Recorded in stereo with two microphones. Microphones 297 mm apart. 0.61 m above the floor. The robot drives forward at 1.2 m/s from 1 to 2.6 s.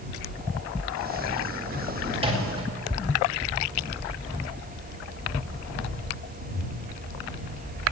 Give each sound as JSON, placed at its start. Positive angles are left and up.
{"t": 2.1, "sound": "a microwave", "side_deg": -20, "distance_m": 3.0}